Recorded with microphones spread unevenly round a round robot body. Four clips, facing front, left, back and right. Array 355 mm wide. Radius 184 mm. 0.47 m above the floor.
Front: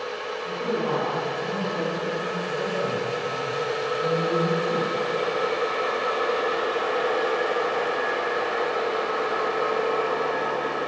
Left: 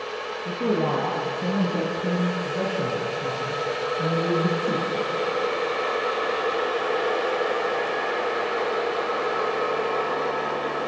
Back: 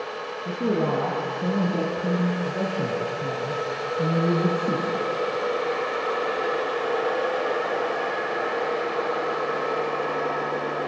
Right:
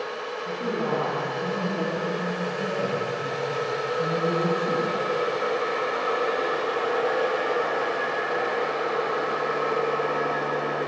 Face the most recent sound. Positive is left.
turn(degrees=170)